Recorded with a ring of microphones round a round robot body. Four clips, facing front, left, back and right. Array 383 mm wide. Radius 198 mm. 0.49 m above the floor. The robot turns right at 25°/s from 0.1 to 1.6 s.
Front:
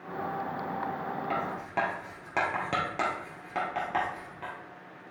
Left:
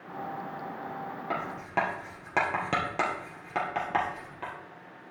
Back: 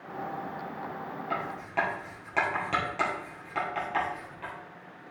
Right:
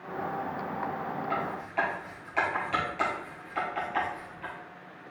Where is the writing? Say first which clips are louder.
Left 3 dB, back 2 dB; 65° left, 2.5 m; by 4.5 s 70° left, 2.5 m.